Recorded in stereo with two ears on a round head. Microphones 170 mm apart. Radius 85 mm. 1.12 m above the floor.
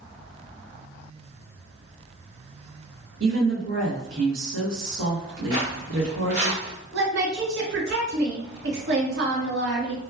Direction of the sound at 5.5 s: 55° right (ahead or behind).